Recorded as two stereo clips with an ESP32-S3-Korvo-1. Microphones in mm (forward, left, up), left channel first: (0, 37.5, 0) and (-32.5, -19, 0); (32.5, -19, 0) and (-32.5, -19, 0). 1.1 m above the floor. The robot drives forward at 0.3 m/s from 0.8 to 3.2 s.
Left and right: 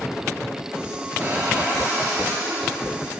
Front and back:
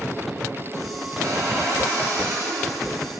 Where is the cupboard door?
155° right, 2.5 m; by 2.8 s 160° right, 3 m.